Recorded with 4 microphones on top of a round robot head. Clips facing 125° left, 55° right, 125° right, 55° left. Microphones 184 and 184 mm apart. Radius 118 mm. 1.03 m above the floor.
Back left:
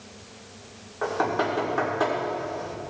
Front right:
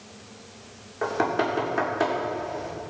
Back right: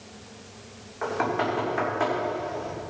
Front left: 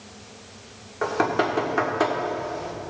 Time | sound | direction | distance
1.0 | knocking | 10° left | 1.8 m